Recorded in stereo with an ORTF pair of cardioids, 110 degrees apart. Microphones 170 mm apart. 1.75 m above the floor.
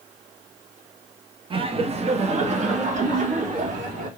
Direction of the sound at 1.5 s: 30° right.